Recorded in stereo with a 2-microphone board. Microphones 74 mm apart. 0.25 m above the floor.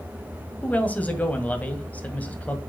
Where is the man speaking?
20° left (ahead or behind), 1.8 m.